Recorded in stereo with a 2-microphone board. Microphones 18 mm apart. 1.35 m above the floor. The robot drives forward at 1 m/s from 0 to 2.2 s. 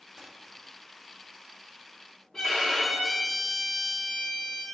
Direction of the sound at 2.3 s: 45° left (ahead or behind).